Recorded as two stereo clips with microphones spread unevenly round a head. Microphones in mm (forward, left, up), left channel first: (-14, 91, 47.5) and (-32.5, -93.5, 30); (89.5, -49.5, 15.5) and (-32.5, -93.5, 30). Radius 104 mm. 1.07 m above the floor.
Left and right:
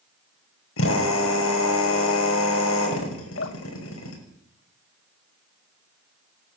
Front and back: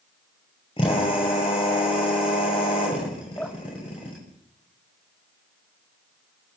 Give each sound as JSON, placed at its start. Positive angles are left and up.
{"t": 0.8, "sound": "a drill", "azimuth_deg": 85, "distance_m": 6.5}
{"t": 3.4, "sound": "dripping", "azimuth_deg": 105, "distance_m": 1.8}